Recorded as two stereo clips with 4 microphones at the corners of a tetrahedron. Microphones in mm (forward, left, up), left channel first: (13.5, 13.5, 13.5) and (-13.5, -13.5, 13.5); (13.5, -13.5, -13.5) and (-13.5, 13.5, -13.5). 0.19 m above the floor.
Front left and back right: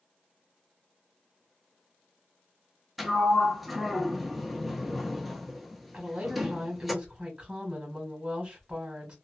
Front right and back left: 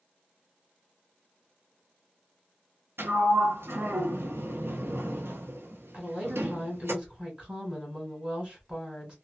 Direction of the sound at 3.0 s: 140° left.